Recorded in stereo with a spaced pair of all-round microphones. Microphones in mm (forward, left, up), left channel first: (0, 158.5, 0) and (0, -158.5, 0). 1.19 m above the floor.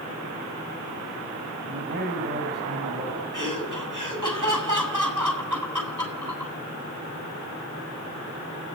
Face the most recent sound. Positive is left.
turn(degrees=-75)  # may be behind; listen again after turning